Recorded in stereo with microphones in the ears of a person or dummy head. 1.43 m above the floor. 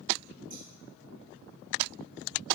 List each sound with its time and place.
0.5 s scissors: 45° right (ahead or behind), 4.5 m